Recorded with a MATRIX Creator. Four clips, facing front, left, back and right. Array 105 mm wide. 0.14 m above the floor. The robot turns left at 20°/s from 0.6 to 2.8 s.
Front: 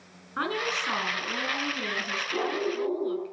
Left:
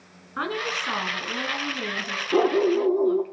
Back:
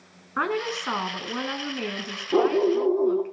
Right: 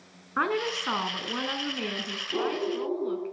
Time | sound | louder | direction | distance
0.4 | a woman speaking | right 1 dB, back 3 dB | 140° right | 1.2 m
2.3 | a dog barking | left 9 dB, back 9 dB | 140° left | 1.8 m